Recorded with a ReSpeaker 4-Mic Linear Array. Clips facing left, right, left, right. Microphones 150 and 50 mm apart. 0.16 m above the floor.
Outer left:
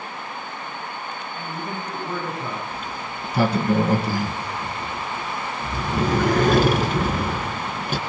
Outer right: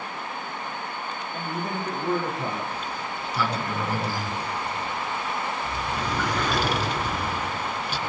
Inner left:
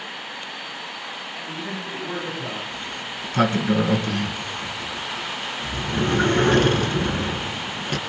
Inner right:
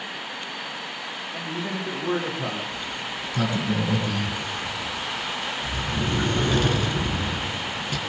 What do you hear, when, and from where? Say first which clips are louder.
1.3 s a man speaking: outer right 2 dB, inner right 3 dB; 85° right, 10 m
2.7 s a sliding door: even, even; 50° left (ahead or behind), 2.5 m